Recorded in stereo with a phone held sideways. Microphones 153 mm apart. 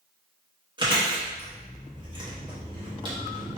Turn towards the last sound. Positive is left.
turn(degrees=-30)  # may be behind; listen again after turning